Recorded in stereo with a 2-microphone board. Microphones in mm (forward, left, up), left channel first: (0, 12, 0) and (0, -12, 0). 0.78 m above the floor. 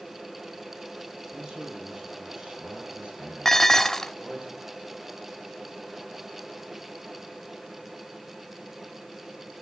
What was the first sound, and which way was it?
A man speaking, 35° right (ahead or behind).